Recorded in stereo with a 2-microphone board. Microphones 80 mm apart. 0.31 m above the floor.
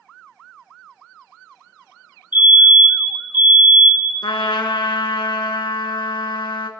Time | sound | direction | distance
2.3 | a fire alarm | 20° right (ahead or behind) | 3.5 m
4.2 | a trumpet | 70° left (ahead or behind) | 1.2 m